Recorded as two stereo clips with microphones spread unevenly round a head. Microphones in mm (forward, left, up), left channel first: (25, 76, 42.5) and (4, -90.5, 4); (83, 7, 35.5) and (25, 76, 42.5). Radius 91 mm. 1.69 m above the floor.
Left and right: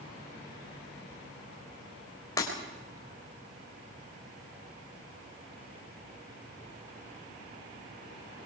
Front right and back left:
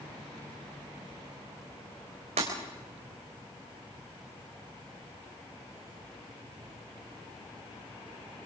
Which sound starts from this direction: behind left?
Breaking glass, at 2.4 s.